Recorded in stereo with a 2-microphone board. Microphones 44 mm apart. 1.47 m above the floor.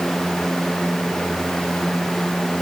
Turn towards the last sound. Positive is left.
No sound to turn to.